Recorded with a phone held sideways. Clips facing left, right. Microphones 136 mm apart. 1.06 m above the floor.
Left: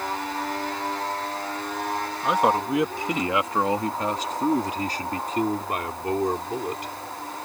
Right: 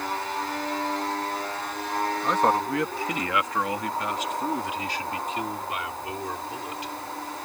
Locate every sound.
2.2 s a man speaking: 10° left (ahead or behind); by 6.9 s 55° left (ahead or behind)